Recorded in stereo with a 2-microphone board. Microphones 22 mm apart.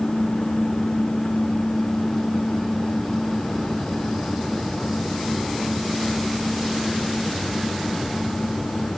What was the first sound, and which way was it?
Only background noise.